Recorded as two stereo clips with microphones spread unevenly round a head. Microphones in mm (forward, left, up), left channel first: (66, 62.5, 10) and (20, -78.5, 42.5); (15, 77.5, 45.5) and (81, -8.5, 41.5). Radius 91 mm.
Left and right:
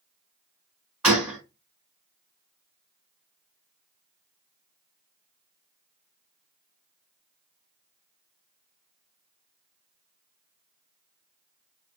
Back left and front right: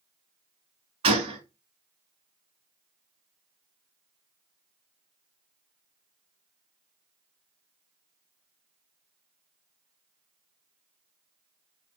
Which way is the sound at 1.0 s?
45° right.